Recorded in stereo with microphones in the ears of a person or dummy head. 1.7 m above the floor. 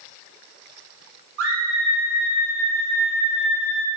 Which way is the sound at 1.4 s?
70° right (ahead or behind).